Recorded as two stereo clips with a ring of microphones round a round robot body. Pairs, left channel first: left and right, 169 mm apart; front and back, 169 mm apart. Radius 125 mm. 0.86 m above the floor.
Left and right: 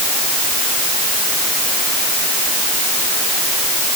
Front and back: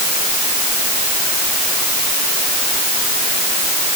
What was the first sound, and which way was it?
Only background noise.